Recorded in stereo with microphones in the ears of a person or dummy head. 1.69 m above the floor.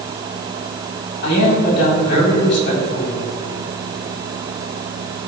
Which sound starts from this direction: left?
A man speaking, at 1.2 s.